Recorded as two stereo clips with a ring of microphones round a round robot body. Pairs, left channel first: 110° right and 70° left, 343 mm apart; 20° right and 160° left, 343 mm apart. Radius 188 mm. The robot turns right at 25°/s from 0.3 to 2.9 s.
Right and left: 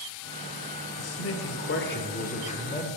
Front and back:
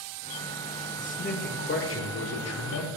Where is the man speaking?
85° right, 1.4 m; by 2.9 s 40° right, 1.4 m.